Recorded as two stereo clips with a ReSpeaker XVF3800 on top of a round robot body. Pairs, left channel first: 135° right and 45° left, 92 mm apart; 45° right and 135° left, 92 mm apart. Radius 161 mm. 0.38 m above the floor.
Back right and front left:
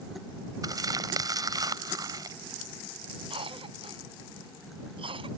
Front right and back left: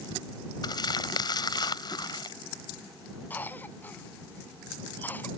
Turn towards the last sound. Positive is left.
turn(degrees=25)